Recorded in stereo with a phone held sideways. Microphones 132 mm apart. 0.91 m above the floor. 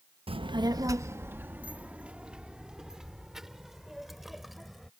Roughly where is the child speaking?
Right.